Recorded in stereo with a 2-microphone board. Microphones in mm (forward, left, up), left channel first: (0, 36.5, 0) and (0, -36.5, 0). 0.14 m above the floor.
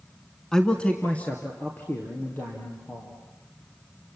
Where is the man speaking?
10° left (ahead or behind), 1.1 m; by 3.2 s 25° left (ahead or behind), 4 m.